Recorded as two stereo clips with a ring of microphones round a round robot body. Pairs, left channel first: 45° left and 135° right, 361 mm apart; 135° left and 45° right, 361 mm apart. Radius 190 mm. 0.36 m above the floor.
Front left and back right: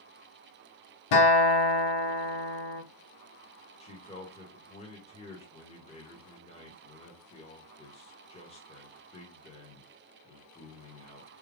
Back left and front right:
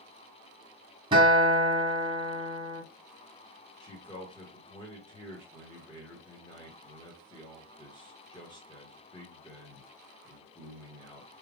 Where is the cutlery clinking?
No cutlery clinking in this recording.